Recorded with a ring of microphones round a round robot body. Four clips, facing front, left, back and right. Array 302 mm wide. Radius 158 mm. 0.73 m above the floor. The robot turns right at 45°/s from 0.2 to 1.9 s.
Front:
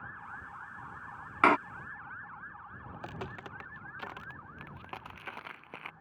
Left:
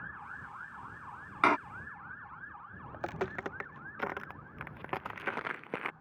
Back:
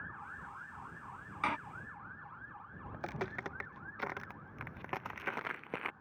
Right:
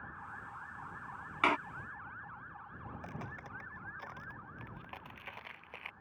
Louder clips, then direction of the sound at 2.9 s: Left 12 dB, back 3 dB; 100° left.